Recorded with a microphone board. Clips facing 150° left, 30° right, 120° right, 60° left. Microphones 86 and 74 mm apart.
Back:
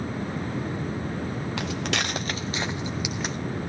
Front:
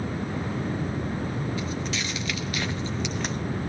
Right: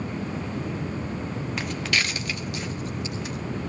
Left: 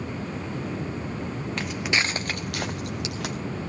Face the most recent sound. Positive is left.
turn(degrees=60)